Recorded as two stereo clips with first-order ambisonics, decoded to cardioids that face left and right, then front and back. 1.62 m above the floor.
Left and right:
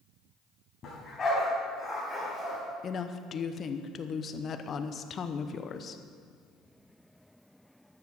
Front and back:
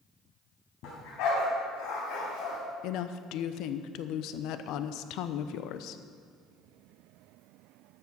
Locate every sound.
0.8 s a dog barking: 25° left, 3.5 m; by 2.6 s 15° right, 3 m
2.8 s a woman speaking: 30° left, 0.7 m